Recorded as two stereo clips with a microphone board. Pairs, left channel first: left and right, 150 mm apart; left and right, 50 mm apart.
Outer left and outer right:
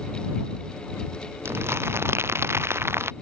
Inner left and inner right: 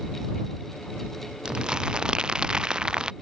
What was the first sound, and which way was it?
Crumpling, 15° right (ahead or behind).